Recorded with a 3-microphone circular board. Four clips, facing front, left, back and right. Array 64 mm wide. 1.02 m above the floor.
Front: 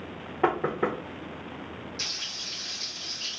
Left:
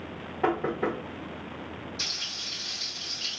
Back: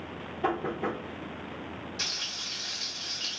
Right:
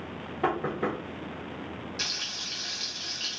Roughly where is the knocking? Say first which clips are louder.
Left 1 dB, front 4 dB; ahead.